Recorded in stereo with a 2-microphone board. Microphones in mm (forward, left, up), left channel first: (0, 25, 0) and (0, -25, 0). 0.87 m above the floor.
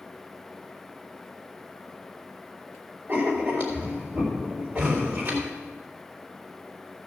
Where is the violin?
No violin in this recording.